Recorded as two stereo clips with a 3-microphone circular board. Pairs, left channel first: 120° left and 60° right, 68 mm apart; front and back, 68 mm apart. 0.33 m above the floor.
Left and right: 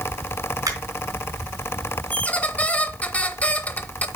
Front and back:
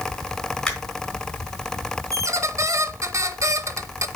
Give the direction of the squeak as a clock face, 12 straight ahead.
6 o'clock.